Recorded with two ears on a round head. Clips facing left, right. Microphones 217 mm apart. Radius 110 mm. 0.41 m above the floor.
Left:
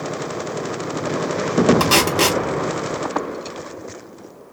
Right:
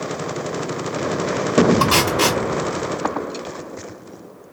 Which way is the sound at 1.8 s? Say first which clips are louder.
Left 1 dB; 40° left (ahead or behind).